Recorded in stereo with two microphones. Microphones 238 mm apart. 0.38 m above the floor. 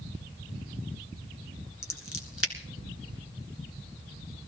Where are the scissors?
65° left (ahead or behind), 2.0 m.